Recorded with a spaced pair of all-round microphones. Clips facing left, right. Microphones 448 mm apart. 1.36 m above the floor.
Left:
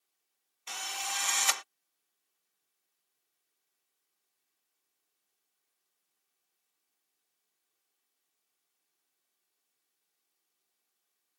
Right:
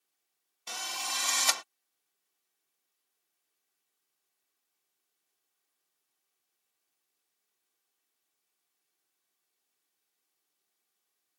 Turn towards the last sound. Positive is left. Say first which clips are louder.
# right 1 dB
turn(degrees=-55)  # may be behind; listen again after turning